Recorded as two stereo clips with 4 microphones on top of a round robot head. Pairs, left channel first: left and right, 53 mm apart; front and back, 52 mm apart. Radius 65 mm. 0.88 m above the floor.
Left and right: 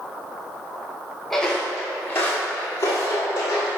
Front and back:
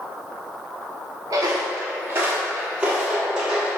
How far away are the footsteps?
About 1.1 m.